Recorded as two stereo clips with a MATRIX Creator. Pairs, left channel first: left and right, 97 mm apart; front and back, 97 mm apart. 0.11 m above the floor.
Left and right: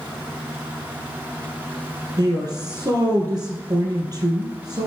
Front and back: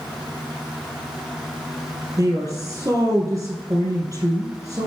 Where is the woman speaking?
125° right, 3 m.